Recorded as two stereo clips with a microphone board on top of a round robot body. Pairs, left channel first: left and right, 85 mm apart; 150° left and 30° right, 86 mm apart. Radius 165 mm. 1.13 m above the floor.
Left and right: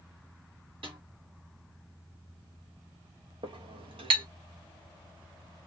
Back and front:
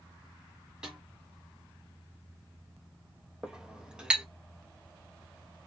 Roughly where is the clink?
Right.